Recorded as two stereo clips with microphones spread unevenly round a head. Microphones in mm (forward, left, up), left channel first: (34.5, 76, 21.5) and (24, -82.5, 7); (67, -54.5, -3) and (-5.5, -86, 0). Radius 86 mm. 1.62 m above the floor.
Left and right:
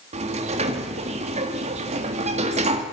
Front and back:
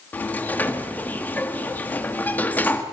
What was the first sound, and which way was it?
A sliding door, 45° right.